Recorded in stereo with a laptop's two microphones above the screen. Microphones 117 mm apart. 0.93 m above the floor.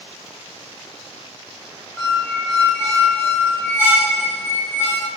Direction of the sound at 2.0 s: 20° left (ahead or behind).